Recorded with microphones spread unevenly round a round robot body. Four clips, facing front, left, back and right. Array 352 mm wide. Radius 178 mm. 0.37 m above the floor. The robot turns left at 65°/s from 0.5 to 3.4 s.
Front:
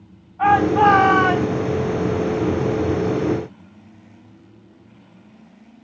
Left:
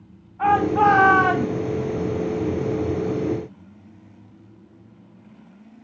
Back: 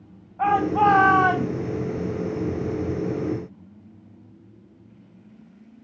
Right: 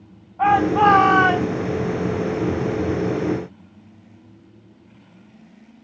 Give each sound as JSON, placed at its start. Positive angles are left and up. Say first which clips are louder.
{"t": 0.4, "sound": "a shout", "louder": "right 2 dB, front 5 dB", "azimuth_deg": -165, "distance_m": 3.0}